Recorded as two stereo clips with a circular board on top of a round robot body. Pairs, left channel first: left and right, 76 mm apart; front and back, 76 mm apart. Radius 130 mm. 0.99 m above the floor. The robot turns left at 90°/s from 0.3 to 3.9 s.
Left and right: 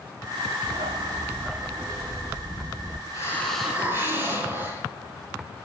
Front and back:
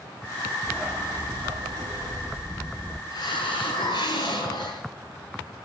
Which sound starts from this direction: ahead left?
A hiss, at 3.1 s.